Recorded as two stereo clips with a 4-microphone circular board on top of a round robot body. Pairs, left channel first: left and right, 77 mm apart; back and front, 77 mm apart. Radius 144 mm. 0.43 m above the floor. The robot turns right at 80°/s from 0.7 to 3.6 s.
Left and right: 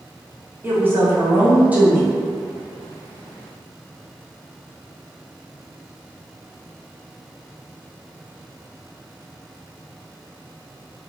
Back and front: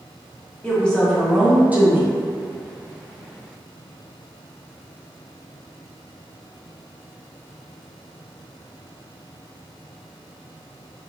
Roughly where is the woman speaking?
Behind right.